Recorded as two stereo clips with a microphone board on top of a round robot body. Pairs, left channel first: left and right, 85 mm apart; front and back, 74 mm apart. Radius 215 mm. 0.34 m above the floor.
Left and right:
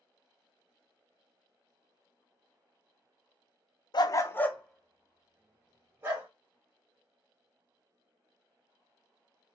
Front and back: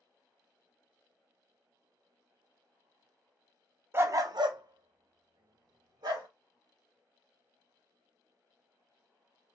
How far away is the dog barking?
About 0.6 m.